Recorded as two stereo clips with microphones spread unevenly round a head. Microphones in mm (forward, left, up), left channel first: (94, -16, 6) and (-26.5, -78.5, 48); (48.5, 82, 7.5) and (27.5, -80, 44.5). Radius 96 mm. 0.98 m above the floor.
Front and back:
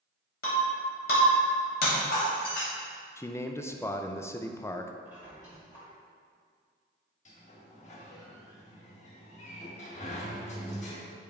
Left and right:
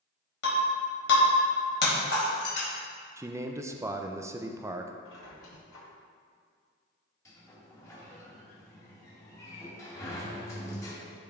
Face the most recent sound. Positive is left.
turn(degrees=15)